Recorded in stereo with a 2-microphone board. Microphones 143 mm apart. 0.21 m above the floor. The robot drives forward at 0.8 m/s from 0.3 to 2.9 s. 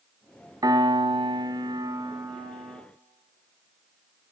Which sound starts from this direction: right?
A piano, at 0.6 s.